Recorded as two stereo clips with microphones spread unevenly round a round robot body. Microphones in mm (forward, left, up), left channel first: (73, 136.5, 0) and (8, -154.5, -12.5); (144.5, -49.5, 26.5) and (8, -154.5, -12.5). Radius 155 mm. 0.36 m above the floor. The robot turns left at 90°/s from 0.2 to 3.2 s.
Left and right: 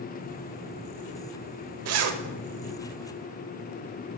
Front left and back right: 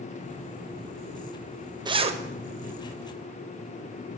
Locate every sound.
1.9 s a zipper: 95° right, 0.7 m; by 2.2 s 130° right, 0.7 m